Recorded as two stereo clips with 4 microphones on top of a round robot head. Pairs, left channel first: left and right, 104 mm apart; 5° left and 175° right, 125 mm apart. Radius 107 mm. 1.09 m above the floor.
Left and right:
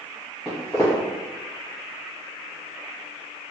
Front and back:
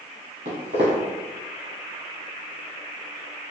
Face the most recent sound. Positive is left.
turn(degrees=-175)